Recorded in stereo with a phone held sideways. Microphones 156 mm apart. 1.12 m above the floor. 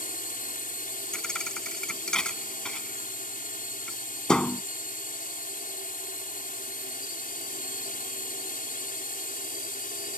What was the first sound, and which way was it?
A drone, 60° left (ahead or behind).